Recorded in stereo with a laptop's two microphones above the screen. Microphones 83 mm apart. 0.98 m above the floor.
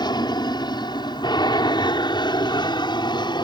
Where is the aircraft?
60° left (ahead or behind); by 3.5 s 65° left (ahead or behind).